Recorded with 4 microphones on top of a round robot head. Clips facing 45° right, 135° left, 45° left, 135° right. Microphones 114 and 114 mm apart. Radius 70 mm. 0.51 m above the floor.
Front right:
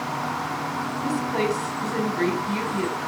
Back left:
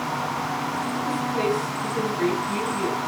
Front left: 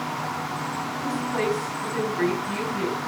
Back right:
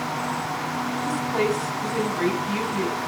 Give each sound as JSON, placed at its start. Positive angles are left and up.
{"t": 1.0, "sound": "a woman speaking", "azimuth_deg": -65, "distance_m": 4.5}